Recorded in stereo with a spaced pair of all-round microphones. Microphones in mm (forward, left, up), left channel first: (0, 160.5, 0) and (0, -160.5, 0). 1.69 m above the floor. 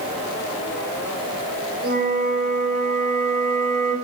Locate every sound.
1.8 s a flute: 70° right (ahead or behind), 1.2 m